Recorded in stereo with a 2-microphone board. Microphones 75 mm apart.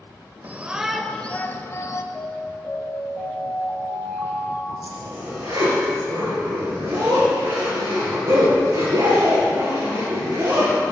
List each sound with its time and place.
0.4 s a shout: 25° right (ahead or behind), 0.9 m; by 2.0 s 45° left (ahead or behind), 1.2 m
2.1 s an alarm: centre (ahead or behind), 4 m
4.8 s a zipper: 75° right (ahead or behind), 5.5 m